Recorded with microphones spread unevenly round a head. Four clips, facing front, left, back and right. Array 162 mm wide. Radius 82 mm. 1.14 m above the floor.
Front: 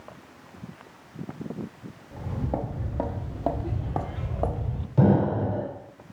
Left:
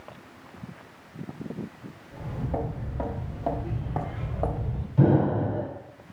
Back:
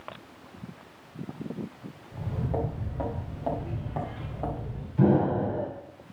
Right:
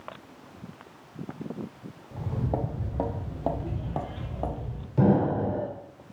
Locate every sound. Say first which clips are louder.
2.1 s footsteps: right 1 dB, front 1 dB; 60° right, 2 m; by 4.9 s 30° left, 1.4 m
5.0 s an explosion: left 1 dB, front 1 dB; 25° right, 3 m